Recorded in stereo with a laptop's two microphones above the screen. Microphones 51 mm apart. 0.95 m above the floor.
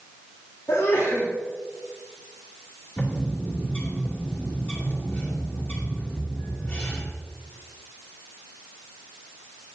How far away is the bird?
About 2.5 m.